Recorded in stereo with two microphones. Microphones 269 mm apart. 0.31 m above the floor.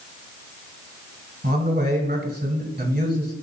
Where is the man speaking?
35° right (ahead or behind), 1.7 m.